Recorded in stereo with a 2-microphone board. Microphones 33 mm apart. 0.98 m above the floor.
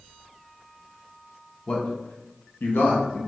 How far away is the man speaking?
About 0.7 m.